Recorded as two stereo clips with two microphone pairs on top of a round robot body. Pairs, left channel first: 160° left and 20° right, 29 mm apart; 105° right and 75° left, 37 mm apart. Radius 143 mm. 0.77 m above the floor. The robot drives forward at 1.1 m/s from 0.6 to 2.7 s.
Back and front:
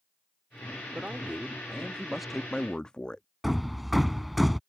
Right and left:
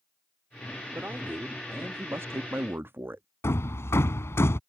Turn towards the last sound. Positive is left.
turn(degrees=-110)